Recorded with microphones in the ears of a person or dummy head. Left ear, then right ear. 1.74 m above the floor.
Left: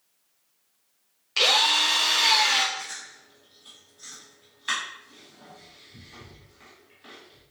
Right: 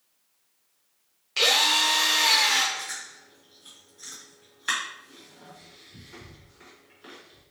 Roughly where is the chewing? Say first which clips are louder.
Right 1 dB; centre.